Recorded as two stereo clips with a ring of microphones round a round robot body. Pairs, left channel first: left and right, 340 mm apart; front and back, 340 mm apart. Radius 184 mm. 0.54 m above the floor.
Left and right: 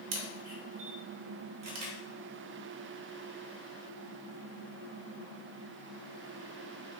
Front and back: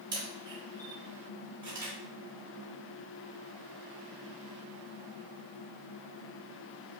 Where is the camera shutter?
100° right, 1.0 m.